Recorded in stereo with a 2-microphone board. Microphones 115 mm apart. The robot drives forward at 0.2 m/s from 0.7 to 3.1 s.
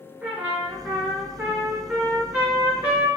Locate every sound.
0.2 s a trumpet: 15° right (ahead or behind), 0.7 m